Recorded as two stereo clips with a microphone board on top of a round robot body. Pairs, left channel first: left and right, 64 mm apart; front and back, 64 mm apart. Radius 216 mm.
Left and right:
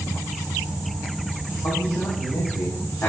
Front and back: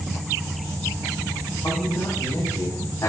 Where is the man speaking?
50° left, 4.5 m; by 3.1 s 40° left, 5 m.